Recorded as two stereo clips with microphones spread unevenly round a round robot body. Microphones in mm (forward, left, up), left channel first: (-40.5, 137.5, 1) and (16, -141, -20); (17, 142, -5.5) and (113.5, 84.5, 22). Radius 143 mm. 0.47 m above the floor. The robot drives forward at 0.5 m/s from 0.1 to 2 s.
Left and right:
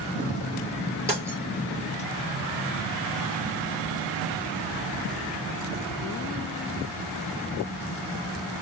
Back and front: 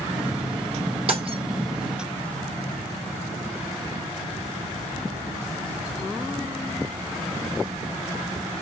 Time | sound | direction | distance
1.1 | breaking glass | 5° left | 3 m